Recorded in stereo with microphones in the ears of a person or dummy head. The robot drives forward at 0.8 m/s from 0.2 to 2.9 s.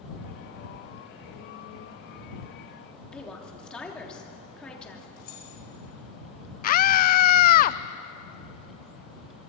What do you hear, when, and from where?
3.1 s a woman speaking: 5° left (ahead or behind), 3 m
5.2 s keys jangling: 55° left (ahead or behind), 4.5 m
6.6 s a scream: 50° left (ahead or behind), 0.6 m